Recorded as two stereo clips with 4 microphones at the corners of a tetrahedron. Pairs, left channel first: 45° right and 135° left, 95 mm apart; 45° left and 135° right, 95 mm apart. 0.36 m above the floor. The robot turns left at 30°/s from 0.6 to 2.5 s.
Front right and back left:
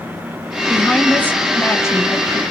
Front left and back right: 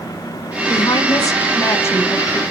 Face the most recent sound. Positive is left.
turn(degrees=-20)